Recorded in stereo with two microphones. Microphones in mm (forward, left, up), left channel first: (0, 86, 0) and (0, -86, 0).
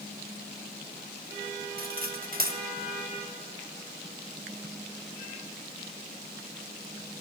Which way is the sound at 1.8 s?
60° right (ahead or behind).